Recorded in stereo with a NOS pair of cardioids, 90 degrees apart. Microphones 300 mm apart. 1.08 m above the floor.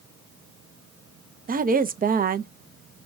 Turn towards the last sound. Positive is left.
turn(degrees=-30)